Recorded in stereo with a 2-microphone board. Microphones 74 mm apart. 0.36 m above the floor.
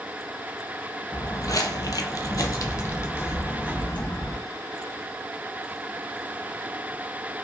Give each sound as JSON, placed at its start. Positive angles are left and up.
{"t": 1.1, "sound": "footsteps", "side_deg": 40, "distance_m": 0.7}